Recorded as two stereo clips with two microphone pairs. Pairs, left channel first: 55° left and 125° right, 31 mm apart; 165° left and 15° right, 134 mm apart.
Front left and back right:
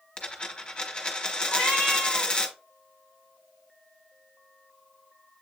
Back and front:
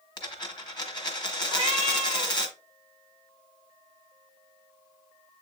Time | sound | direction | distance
0.2 | a dropped coin | 110° left | 1.1 m
1.5 | a cat meowing | 140° right | 3.5 m